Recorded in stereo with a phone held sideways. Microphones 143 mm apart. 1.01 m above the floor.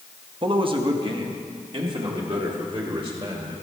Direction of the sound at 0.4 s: 35° right (ahead or behind).